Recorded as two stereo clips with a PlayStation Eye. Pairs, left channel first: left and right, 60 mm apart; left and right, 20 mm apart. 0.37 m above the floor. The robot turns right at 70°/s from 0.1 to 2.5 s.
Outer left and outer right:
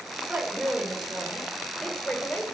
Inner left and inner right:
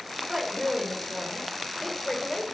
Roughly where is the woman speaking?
Right.